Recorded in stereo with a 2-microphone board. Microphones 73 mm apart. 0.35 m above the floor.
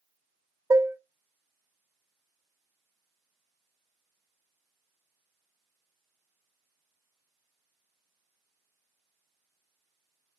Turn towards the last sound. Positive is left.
turn(degrees=-40)  # may be behind; listen again after turning